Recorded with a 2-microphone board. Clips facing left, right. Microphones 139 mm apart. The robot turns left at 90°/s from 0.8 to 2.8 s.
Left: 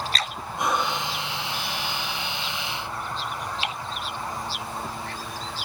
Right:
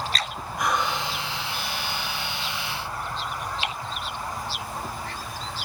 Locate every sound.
0.6 s breathing: 25° left (ahead or behind), 1.3 m; by 1.1 s 45° left (ahead or behind), 1.3 m